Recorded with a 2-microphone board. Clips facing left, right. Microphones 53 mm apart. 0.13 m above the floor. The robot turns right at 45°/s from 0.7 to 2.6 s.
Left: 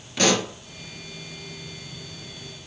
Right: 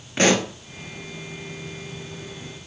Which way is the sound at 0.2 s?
30° right (ahead or behind).